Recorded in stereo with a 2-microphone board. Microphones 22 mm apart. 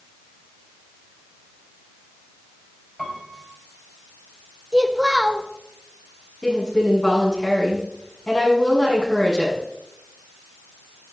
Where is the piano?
15° left (ahead or behind), 3.5 m.